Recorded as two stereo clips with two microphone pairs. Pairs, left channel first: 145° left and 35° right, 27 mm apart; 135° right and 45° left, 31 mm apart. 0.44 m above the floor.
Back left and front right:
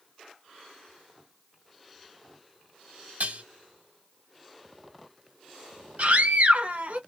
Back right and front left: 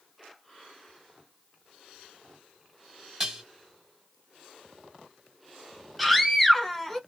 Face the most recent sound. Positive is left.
turn(degrees=-45)